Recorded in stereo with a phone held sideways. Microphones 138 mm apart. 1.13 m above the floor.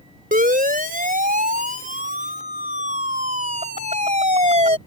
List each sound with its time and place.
0.3 s a siren: 75° right (ahead or behind); by 4.8 s 50° right (ahead or behind)